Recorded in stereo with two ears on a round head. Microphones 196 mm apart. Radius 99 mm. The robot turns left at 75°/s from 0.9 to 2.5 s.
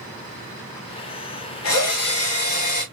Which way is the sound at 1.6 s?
110° left.